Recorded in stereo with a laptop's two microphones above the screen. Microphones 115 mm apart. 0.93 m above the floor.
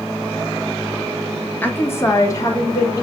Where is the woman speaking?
15° left (ahead or behind), 1.3 m; by 3.0 s 35° left (ahead or behind), 3 m.